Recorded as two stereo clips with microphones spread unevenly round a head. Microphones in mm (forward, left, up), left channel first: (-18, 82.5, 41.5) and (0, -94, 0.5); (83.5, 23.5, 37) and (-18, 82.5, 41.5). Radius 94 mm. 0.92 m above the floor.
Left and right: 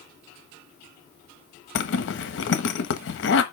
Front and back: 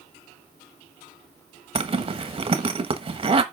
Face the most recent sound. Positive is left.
turn(degrees=115)